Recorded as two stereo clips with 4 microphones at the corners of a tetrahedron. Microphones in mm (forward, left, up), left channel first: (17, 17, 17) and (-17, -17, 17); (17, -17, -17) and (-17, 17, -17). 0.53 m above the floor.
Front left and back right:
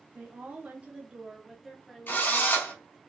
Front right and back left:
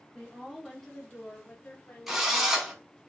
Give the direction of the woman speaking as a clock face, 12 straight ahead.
5 o'clock.